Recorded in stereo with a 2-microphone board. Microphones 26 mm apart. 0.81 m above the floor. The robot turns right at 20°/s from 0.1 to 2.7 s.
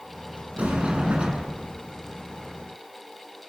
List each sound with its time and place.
0.6 s a sliding door: 65° right (ahead or behind), 7 m; by 1.6 s 40° right (ahead or behind), 7 m